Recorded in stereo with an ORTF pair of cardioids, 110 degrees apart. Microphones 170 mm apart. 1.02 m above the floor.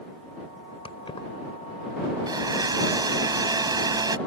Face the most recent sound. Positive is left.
turn(degrees=-25)